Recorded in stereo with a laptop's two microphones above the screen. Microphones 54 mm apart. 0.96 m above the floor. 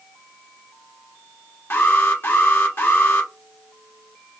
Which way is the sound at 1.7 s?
45° left (ahead or behind).